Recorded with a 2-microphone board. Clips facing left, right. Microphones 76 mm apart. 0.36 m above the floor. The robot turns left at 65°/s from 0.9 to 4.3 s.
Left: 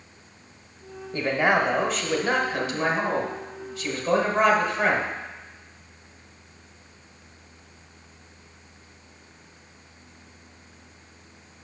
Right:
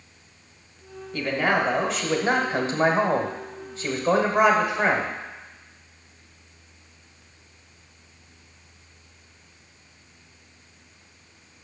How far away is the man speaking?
About 1.1 m.